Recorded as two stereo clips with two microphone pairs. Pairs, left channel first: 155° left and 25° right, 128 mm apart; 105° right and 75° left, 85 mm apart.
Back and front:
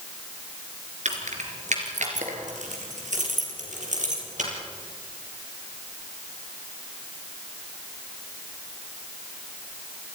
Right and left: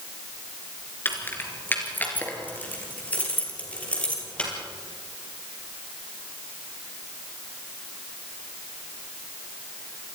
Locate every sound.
1.1 s keys jangling: 40° right, 3.5 m; by 4.5 s 30° right, 6 m